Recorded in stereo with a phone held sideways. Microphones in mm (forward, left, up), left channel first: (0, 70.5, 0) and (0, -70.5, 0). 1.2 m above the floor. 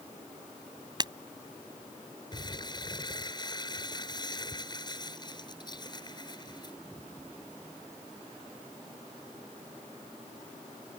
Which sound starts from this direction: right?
Breaking glass, at 1.0 s.